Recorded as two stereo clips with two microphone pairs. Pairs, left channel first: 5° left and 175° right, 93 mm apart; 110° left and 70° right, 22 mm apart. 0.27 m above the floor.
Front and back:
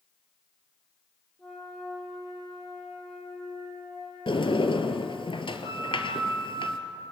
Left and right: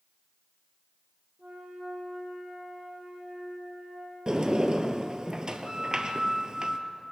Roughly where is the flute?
Right.